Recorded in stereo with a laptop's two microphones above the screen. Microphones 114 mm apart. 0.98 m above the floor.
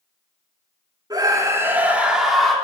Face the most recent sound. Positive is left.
turn(degrees=0)  # may be behind; listen again after turning